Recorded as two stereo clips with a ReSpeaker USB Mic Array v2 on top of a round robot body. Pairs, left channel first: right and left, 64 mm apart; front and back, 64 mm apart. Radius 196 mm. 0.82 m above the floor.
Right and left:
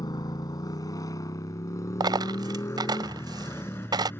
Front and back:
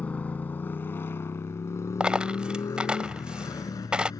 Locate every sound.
0.0 s a motorcycle: 70° right; by 4.2 s 30° right
2.0 s a dropped coin: 105° left